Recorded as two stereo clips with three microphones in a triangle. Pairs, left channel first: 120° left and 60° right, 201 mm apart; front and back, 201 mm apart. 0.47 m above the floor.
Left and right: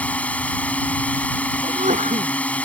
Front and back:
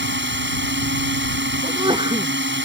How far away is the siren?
No siren in this recording.